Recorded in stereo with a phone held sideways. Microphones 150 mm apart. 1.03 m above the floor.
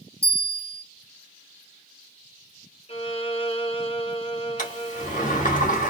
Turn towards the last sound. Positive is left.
turn(degrees=60)  # may be behind; listen again after turning